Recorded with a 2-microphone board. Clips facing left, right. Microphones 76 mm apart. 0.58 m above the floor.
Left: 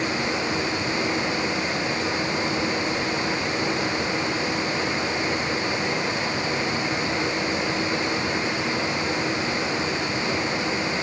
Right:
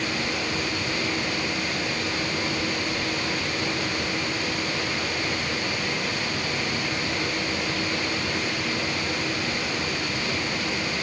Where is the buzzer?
No buzzer in this recording.